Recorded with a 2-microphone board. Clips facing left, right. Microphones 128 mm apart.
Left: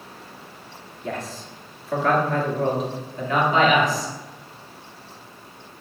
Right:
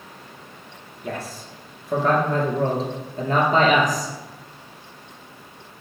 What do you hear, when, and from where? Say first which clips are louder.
1.0 s a man speaking: even; 5° right (ahead or behind), 2 m; by 4.1 s 45° right (ahead or behind), 2.5 m